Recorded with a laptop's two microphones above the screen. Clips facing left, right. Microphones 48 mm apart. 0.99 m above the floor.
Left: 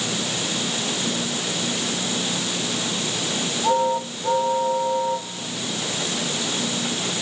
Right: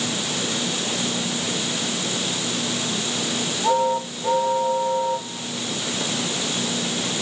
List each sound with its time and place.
Only background noise.